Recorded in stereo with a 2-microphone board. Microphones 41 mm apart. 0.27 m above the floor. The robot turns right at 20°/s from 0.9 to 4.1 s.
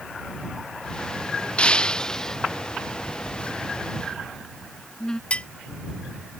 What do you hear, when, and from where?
1.6 s breaking glass: 25° left (ahead or behind); by 2.4 s 10° left (ahead or behind)
3.0 s a phone buzzing: 35° left (ahead or behind); by 5.2 s 20° left (ahead or behind)
5.3 s dishes clattering: 30° left (ahead or behind)